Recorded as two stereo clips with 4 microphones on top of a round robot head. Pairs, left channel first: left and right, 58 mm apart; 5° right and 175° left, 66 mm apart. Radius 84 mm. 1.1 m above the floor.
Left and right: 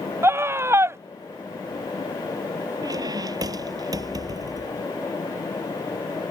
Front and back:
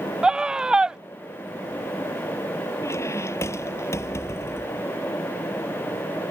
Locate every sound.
0.2 s a scream: 110° right
2.8 s a squeak: 60° right